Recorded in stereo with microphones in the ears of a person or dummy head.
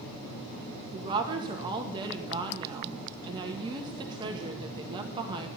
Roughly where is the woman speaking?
Right.